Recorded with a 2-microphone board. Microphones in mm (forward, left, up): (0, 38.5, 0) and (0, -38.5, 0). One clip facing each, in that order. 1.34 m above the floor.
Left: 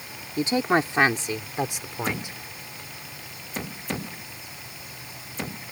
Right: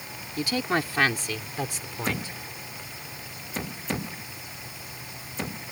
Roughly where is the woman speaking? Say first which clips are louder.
Left 5 dB; left.